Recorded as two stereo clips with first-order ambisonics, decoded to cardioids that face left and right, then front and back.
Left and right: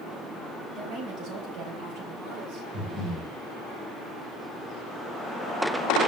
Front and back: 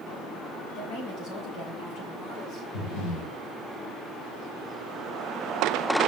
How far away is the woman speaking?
About 4.5 m.